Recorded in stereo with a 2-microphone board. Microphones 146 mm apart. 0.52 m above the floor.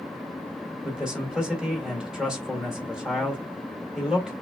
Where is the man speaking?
5° right (ahead or behind), 1.9 m.